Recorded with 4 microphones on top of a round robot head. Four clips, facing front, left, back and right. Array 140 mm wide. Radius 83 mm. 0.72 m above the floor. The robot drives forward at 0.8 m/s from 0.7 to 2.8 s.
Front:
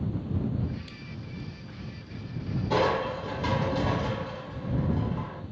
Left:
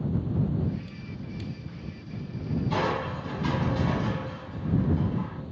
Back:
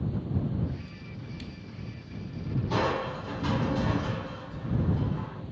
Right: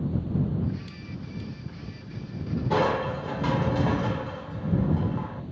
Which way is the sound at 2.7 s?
80° right.